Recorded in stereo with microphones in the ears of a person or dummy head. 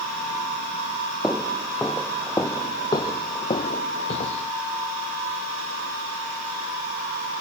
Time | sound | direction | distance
1.2 | footsteps | centre (ahead or behind) | ?